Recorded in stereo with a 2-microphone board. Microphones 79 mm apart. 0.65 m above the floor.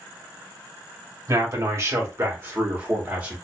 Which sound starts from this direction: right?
A man speaking, at 1.3 s.